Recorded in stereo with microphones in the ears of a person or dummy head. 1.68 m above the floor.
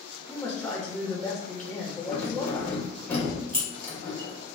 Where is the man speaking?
10° left (ahead or behind), 1.1 m.